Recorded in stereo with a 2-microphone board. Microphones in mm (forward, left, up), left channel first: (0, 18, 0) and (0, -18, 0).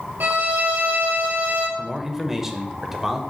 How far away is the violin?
About 2.5 m.